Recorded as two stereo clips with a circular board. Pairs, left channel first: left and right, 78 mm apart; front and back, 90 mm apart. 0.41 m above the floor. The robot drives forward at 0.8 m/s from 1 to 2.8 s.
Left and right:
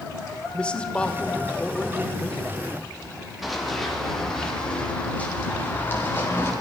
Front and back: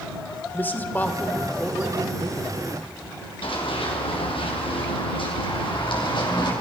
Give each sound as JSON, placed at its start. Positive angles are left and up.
{"t": 0.5, "sound": "a man speaking", "azimuth_deg": 35, "distance_m": 1.0}
{"t": 3.4, "sound": "running footsteps", "azimuth_deg": -5, "distance_m": 4.0}